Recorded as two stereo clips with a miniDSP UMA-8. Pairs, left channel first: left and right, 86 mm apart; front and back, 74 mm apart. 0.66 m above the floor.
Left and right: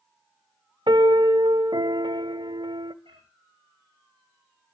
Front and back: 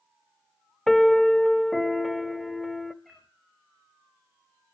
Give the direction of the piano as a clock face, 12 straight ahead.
3 o'clock.